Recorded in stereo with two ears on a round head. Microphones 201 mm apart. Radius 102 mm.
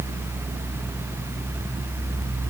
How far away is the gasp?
I don't hear a gasp.